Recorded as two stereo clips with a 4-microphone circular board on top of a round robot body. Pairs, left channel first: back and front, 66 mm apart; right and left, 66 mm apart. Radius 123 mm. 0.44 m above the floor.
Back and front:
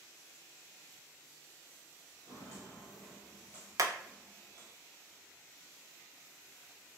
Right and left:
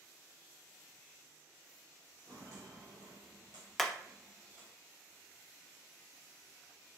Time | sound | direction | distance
2.3 | footsteps | 150° left | 0.5 m
3.8 | hammering | 5° right | 0.6 m